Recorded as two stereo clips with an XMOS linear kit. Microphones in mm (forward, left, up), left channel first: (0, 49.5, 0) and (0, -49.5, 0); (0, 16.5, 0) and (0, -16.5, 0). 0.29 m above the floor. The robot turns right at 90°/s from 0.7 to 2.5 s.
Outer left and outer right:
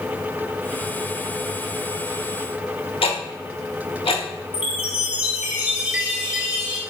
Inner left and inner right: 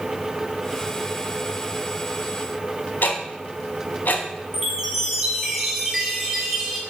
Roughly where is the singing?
I don't hear singing.